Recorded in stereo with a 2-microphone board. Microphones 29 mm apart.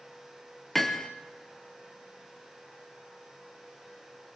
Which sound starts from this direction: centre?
Hammering, at 0.8 s.